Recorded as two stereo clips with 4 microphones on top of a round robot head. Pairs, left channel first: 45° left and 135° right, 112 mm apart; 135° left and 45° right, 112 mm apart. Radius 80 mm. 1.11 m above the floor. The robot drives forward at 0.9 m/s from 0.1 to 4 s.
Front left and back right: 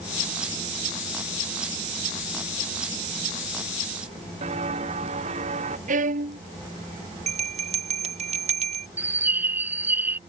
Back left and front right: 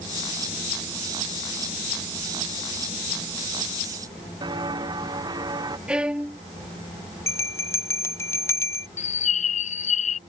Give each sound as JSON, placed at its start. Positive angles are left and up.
{"t": 4.4, "sound": "footsteps", "azimuth_deg": -100}
{"t": 5.9, "sound": "a violin", "azimuth_deg": -130}
{"t": 7.3, "sound": "a bell", "azimuth_deg": -160}
{"t": 9.0, "sound": "a bird", "azimuth_deg": 150}